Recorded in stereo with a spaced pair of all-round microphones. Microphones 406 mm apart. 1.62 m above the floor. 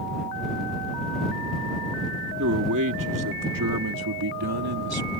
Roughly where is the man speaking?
Right.